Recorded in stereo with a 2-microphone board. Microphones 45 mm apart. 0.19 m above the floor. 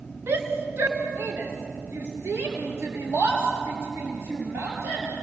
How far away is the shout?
About 3 m.